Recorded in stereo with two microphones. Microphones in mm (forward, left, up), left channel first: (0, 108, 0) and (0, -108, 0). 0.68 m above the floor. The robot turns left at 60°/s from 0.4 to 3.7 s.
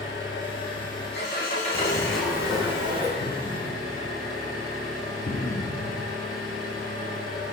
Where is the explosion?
5° left (ahead or behind), 0.8 m; by 6.2 s 35° left (ahead or behind), 0.8 m.